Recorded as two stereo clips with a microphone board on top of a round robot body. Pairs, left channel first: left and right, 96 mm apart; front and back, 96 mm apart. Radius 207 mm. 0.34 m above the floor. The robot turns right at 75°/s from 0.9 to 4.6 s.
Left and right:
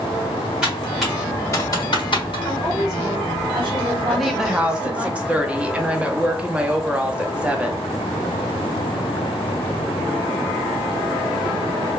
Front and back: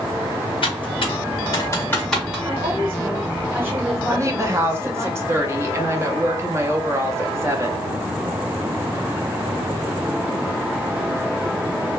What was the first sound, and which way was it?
Typing on a keyboard, 10° right.